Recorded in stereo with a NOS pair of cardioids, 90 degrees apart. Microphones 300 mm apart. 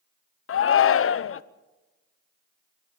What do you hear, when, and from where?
0.5 s a shout: 45° left, 1.0 m